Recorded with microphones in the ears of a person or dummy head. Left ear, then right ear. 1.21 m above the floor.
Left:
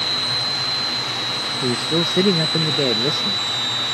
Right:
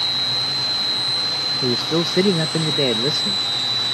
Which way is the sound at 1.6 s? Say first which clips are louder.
Even; 5° right (ahead or behind).